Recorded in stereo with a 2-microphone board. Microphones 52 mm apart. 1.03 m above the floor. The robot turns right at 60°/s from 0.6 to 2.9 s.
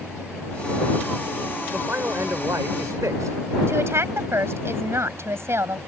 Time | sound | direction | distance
1.7 | a man speaking | 155° right | ?
3.7 | a woman speaking | 55° right (ahead or behind) | ?